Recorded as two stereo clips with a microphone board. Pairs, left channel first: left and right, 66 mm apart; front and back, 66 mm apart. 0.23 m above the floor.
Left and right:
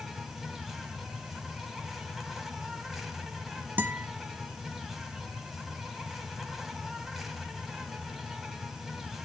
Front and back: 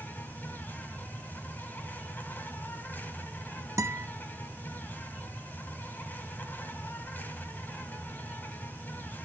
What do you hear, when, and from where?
0.0 s an insect: 5° right, 1.3 m
3.8 s a guitar: 145° right, 0.6 m